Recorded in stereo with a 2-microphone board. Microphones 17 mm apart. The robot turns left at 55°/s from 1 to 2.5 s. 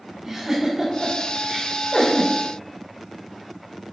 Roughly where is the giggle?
Right.